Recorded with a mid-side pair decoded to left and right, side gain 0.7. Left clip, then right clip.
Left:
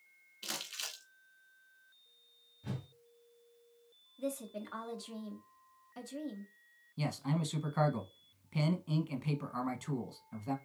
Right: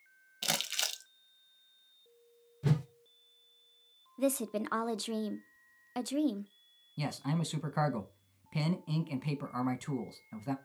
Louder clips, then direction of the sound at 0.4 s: Right 8 dB; 70° right.